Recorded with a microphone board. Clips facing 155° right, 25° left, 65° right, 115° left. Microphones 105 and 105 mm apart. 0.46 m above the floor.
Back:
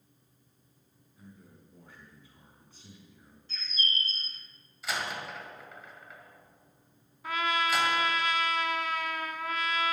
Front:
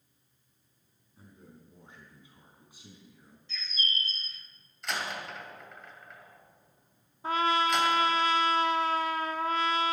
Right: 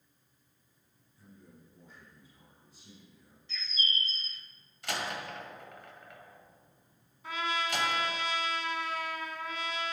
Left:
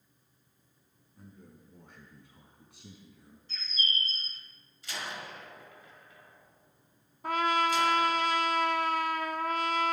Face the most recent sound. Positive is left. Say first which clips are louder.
# front 3 dB, left 7 dB
turn(degrees=80)